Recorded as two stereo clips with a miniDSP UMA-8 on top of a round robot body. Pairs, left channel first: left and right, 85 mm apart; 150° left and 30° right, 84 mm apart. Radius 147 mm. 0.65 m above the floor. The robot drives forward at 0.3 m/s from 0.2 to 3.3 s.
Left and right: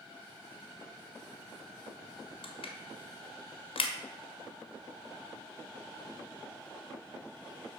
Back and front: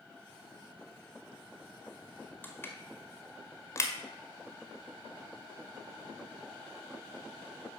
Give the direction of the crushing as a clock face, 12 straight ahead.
9 o'clock.